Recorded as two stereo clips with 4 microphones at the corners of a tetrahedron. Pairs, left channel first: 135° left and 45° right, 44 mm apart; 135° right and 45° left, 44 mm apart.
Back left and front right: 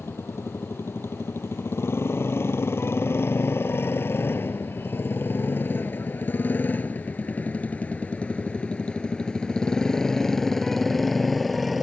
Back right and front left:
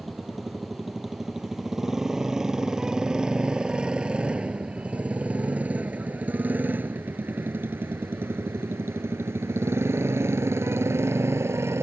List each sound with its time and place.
0.0 s a motorcycle: 135° left; by 11.8 s 40° left